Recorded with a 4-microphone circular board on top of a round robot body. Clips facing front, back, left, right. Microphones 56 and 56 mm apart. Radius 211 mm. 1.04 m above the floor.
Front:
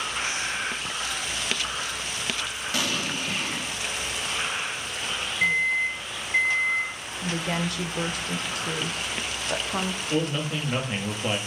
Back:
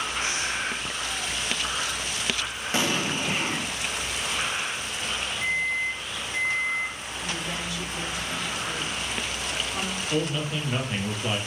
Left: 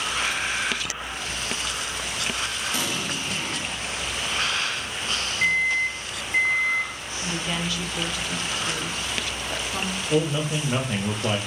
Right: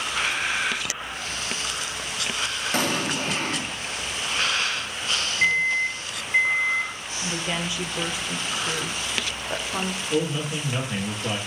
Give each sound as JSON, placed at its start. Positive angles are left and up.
{"t": 2.7, "sound": "an explosion", "azimuth_deg": -120, "distance_m": 0.7}
{"t": 5.4, "sound": "a microwave", "azimuth_deg": -15, "distance_m": 0.8}
{"t": 7.2, "sound": "a woman speaking", "azimuth_deg": -20, "distance_m": 0.7}
{"t": 10.1, "sound": "a man speaking", "azimuth_deg": 70, "distance_m": 1.5}